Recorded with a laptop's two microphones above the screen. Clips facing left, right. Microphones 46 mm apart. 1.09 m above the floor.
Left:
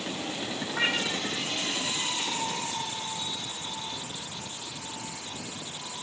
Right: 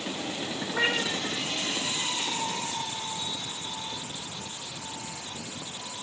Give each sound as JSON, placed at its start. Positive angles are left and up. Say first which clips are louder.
{"t": 0.7, "sound": "a cat meowing", "louder": "right 1 dB", "side_deg": -10, "distance_m": 4.5}